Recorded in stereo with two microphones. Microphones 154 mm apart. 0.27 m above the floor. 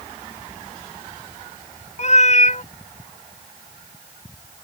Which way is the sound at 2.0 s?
45° left (ahead or behind).